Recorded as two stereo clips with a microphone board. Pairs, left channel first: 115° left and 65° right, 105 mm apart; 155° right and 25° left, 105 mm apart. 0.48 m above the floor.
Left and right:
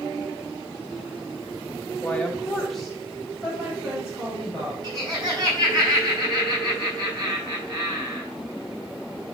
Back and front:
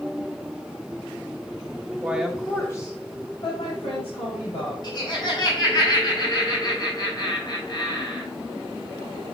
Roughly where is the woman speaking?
Ahead left.